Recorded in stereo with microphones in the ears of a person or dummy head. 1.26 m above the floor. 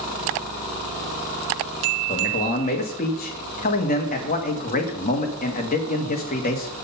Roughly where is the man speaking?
Left.